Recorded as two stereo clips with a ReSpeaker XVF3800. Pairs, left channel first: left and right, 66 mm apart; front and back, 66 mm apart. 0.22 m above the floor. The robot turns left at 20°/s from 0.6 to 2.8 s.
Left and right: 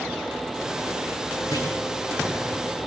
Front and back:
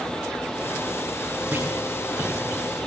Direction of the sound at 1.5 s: 115° left.